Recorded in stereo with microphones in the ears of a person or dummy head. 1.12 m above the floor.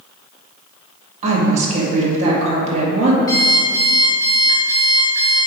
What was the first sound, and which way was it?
A woman speaking, 40° right (ahead or behind).